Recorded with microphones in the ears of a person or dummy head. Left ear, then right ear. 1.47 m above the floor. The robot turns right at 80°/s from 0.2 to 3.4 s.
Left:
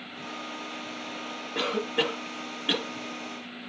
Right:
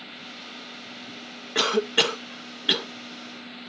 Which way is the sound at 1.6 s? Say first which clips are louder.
Right 6 dB; 75° right (ahead or behind).